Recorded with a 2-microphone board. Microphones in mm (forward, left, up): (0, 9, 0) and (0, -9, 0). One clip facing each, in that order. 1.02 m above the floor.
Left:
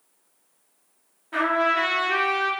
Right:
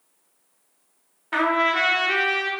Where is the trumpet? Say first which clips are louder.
Right 1 dB; 45° right (ahead or behind), 0.9 m.